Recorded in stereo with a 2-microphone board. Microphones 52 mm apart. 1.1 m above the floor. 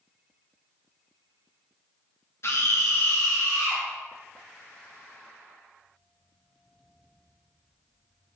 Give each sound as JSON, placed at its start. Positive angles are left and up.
{"t": 2.4, "sound": "a scream", "side_deg": 55, "distance_m": 0.9}